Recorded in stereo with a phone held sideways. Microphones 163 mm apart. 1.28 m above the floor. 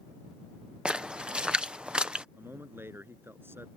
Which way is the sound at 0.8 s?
5° right (ahead or behind).